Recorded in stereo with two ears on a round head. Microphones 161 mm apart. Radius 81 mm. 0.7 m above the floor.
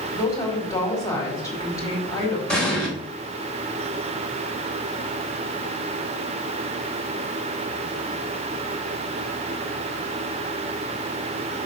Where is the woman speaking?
20° left (ahead or behind), 4.5 m.